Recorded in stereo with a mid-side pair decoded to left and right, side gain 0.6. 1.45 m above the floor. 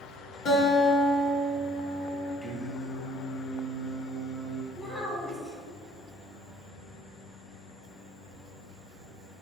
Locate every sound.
0.5 s a guitar: 55° left, 1.3 m
2.4 s singing: 5° right, 1.2 m
4.7 s a child speaking: 20° left, 1.8 m